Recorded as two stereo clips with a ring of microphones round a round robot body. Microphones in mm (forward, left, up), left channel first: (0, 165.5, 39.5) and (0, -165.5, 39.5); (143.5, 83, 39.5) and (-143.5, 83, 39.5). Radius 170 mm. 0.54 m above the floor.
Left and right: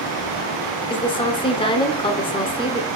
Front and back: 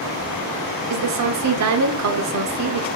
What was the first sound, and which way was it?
A woman speaking, 165° left.